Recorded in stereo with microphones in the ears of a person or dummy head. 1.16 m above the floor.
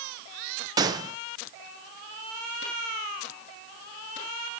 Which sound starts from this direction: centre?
A gunshot, at 0.8 s.